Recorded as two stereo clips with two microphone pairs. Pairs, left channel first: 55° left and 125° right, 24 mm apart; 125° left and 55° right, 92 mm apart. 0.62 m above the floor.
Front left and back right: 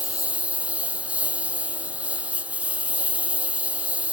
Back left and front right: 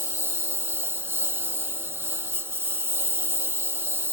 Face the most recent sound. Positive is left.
turn(degrees=-120)